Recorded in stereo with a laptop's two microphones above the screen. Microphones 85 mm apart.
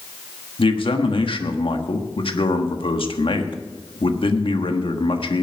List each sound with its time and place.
0.6 s a man speaking: 80° left, 1.4 m